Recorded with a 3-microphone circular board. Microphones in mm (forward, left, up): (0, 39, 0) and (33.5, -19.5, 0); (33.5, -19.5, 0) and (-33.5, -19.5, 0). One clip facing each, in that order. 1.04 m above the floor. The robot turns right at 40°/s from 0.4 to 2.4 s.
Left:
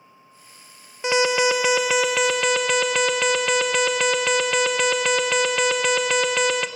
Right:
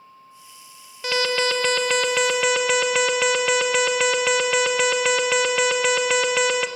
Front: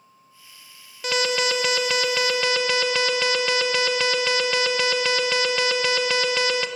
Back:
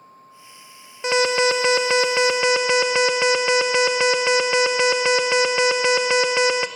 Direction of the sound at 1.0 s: 160° left.